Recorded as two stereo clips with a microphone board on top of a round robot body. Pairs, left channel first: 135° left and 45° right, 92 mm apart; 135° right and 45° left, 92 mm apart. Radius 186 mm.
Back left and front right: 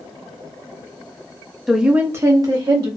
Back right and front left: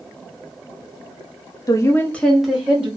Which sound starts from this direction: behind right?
A woman speaking, at 1.7 s.